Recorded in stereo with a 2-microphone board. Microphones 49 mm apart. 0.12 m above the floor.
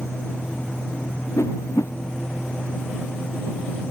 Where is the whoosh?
80° left.